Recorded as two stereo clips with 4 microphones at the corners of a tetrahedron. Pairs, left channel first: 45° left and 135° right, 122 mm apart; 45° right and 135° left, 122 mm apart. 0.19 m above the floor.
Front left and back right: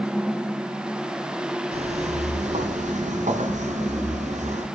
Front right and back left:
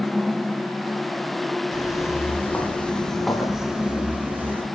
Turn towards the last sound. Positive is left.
turn(degrees=-150)